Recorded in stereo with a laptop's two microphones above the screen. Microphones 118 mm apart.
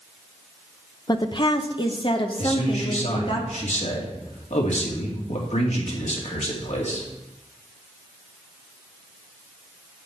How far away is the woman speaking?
About 0.8 m.